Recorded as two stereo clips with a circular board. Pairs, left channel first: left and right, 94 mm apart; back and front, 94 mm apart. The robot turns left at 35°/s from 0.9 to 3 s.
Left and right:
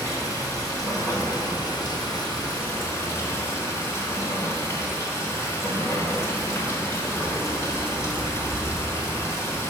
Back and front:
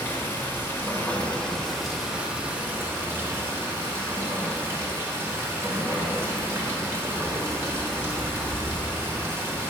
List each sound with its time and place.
0.0 s running water: 120° left, 1.1 m; by 9.7 s 50° left, 1.1 m